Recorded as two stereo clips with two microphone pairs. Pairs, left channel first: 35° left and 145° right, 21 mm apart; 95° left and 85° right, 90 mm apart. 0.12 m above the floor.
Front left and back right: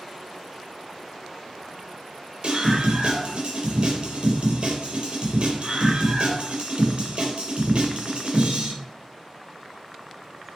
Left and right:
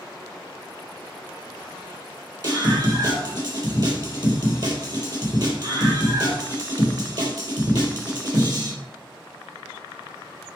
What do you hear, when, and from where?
2.4 s a scream: 110° right, 3.5 m